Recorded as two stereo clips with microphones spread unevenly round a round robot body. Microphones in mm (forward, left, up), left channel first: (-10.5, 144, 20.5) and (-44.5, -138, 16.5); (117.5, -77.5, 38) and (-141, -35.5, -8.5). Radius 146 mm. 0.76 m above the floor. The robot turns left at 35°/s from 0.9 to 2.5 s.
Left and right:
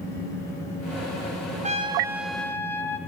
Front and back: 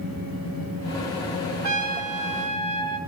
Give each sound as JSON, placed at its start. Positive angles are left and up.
{"t": 1.6, "sound": "a trumpet", "azimuth_deg": -165, "distance_m": 1.2}